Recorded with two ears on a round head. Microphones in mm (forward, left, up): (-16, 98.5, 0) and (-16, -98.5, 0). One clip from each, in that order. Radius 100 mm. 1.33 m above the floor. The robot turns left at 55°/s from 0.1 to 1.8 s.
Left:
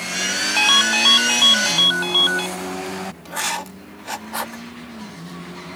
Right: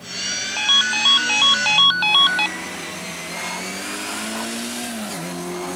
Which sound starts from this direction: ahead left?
A ringtone, at 0.6 s.